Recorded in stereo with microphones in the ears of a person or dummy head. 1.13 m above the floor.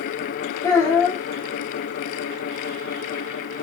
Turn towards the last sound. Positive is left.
turn(degrees=10)  # may be behind; listen again after turning